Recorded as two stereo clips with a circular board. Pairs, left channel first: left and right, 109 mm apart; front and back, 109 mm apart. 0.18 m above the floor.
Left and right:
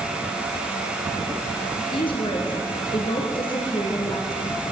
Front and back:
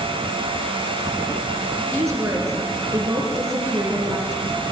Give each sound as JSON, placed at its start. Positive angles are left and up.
{"t": 1.8, "sound": "a woman speaking", "azimuth_deg": 120, "distance_m": 3.0}